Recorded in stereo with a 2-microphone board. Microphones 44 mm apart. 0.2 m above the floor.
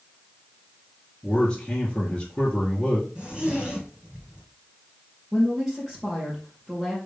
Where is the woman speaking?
10° right (ahead or behind), 3.5 m.